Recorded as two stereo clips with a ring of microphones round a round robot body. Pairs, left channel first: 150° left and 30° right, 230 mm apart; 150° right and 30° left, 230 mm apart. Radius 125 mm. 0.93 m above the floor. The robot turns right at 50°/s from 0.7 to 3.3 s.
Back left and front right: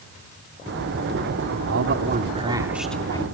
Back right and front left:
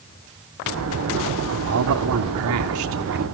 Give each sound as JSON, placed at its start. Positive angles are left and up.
{"t": 1.7, "sound": "a man speaking", "azimuth_deg": 0, "distance_m": 2.0}